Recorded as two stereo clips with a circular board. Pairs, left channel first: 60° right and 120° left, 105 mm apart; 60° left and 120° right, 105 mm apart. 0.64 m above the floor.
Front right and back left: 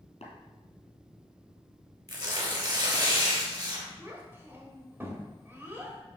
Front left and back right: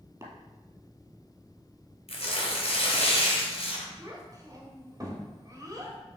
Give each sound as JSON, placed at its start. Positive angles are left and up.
{"t": 0.2, "sound": "tapping", "azimuth_deg": -60, "distance_m": 2.5}
{"t": 2.1, "sound": "tearing paper", "azimuth_deg": 70, "distance_m": 2.5}
{"t": 4.0, "sound": "a child speaking", "azimuth_deg": -175, "distance_m": 2.5}